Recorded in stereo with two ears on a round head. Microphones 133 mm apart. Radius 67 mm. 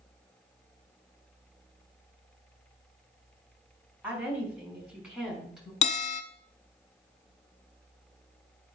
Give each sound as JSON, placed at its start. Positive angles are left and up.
{"t": 4.0, "sound": "a woman speaking", "side_deg": -10, "distance_m": 4.0}
{"t": 5.8, "sound": "a bell", "side_deg": 45, "distance_m": 0.9}